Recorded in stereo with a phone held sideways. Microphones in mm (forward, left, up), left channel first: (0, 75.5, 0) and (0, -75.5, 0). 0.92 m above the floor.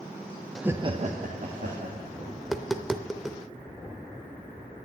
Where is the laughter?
5° left (ahead or behind), 0.5 m; by 2.3 s 75° right (ahead or behind), 2.5 m.